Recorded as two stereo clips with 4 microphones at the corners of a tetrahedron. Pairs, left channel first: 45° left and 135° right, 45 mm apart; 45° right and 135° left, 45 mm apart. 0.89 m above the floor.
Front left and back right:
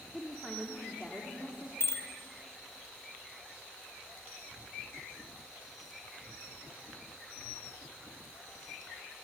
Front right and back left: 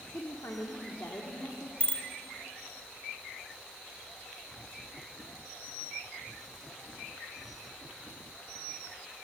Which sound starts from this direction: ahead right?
A woman speaking, at 0.1 s.